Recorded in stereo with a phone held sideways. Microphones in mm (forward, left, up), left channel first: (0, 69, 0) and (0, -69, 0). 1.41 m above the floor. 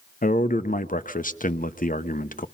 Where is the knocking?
No knocking in this recording.